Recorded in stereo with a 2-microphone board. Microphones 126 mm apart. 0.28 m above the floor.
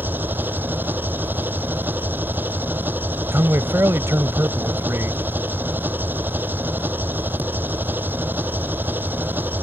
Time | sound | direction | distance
0.0 | an engine running | 15° right (ahead or behind) | ?
3.3 | a man speaking | 20° right (ahead or behind) | ?